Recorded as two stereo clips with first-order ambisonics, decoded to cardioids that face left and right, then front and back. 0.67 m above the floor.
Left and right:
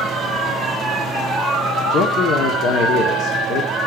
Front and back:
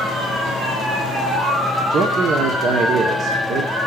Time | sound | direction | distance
1.9 | a man speaking | 130° left | 1.1 m